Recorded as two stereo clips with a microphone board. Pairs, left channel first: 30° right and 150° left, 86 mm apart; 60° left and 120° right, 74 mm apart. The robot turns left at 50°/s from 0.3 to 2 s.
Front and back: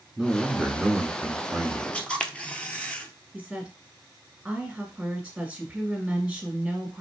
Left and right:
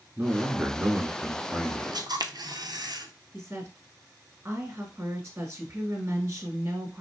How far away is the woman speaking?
About 1.2 m.